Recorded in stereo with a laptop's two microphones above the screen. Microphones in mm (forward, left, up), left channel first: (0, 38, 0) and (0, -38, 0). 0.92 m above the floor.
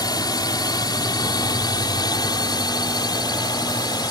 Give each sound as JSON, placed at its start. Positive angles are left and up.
{"t": 0.0, "sound": "a drone", "side_deg": 60}